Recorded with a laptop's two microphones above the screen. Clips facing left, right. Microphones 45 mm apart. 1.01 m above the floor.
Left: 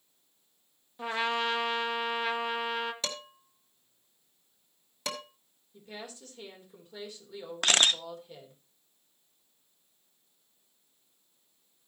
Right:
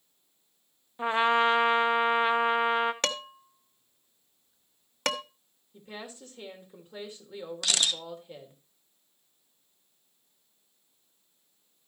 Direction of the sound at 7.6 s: 40° left (ahead or behind).